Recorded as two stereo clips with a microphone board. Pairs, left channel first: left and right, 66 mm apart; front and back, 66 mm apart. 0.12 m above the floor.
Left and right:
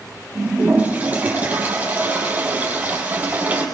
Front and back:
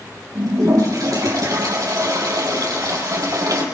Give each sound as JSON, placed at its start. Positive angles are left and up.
{"t": 0.3, "sound": "a toilet flushing", "azimuth_deg": -155, "distance_m": 4.5}